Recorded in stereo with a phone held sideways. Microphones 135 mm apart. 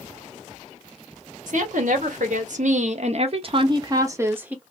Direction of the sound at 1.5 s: 70° right (ahead or behind).